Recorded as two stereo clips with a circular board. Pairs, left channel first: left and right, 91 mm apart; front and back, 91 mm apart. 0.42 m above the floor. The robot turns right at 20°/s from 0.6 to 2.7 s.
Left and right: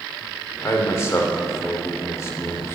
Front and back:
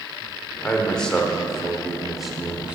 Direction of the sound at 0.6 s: 65° left.